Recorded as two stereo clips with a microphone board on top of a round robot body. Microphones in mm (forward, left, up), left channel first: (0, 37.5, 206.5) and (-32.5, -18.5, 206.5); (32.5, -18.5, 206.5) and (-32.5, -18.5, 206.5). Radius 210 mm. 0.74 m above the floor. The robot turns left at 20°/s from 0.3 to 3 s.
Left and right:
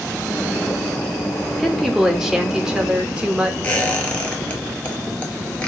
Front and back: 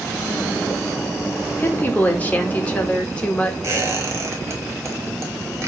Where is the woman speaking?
30° right, 1.1 m; by 3.5 s 55° right, 1.1 m.